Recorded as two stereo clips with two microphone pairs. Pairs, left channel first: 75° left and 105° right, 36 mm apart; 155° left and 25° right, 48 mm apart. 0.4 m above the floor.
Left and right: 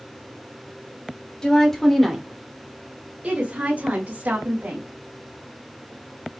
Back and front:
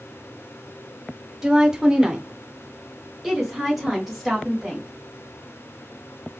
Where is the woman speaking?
30° left, 1.1 m; by 4.9 s 120° right, 2 m.